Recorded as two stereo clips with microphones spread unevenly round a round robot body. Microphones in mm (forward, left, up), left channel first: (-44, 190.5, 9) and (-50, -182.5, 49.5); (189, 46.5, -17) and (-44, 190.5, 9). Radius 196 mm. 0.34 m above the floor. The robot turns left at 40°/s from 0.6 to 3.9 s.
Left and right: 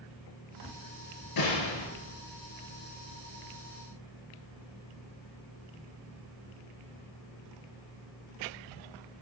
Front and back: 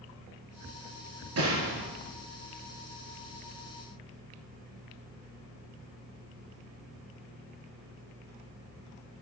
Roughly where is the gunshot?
Behind left.